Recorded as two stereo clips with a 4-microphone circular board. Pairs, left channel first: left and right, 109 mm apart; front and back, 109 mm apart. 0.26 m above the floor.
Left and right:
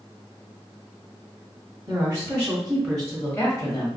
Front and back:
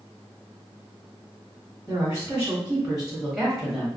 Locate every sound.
1.9 s a woman speaking: 125° right, 1.1 m; by 3.9 s 85° left, 1.1 m